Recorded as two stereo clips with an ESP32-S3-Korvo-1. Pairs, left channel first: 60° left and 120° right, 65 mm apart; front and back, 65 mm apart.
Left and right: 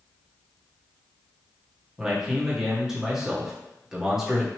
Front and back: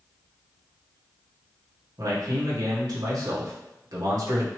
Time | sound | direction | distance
2.0 | a man speaking | 155° left | 1.5 m